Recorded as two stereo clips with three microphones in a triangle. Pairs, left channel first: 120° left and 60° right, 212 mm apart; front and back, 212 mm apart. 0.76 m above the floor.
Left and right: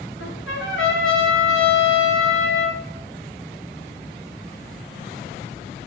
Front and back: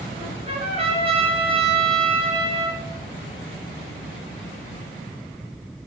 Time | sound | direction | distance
0.2 | a trumpet | 120° left | 1.8 m